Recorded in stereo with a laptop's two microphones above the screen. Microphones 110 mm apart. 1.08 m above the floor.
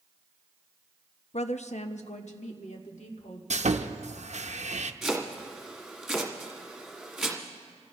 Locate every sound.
1.3 s a woman speaking: 65° left (ahead or behind), 0.6 m; by 3.4 s 90° left, 2.5 m
3.5 s sawing: 75° right (ahead or behind), 0.7 m
5.0 s chopping: centre (ahead or behind), 1.8 m